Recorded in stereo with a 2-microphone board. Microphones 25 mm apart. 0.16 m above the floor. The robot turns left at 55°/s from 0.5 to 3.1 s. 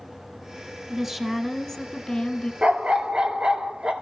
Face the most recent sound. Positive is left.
turn(degrees=-65)  # may be behind; listen again after turning